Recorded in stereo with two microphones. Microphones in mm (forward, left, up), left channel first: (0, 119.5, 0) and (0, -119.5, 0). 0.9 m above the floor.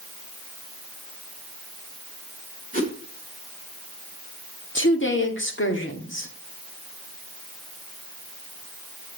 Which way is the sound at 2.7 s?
35° left (ahead or behind).